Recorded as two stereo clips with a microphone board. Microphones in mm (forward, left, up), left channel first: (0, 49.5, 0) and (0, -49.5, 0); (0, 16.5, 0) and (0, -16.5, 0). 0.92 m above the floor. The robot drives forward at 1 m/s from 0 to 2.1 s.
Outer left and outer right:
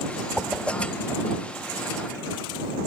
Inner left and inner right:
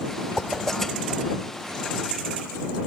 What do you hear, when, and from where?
0.4 s a whoosh: 10° right (ahead or behind), 0.6 m; by 1.4 s 5° right (ahead or behind), 1.5 m